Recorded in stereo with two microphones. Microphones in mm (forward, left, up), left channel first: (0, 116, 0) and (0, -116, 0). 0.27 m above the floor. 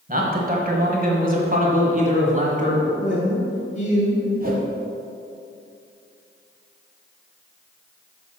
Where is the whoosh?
40° right (ahead or behind), 1.1 m.